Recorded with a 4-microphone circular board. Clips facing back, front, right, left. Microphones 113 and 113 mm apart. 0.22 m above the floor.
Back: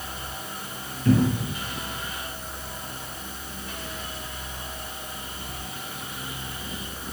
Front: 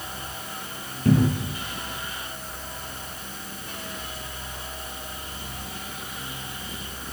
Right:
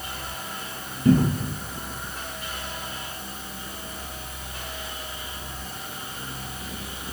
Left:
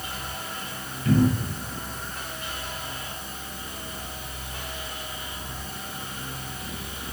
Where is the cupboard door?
50° right, 0.8 m.